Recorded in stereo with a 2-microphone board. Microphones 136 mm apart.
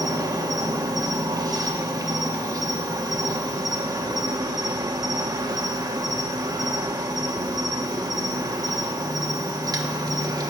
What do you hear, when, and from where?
0.0 s an insect: 25° right (ahead or behind), 1.0 m